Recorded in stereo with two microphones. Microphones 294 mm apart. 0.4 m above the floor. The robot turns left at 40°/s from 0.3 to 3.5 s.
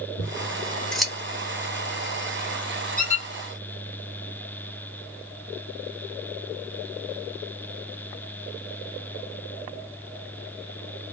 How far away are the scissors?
About 0.8 m.